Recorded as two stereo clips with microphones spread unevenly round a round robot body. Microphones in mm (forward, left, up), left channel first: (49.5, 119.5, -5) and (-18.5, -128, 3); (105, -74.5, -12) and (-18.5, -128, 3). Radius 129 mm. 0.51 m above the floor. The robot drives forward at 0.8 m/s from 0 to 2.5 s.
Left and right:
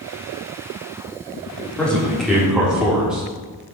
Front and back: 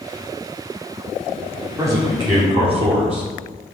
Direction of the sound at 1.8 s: 145° left.